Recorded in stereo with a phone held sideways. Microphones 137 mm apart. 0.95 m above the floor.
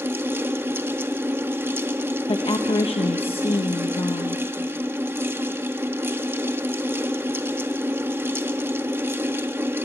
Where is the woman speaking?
45° left (ahead or behind), 1.0 m.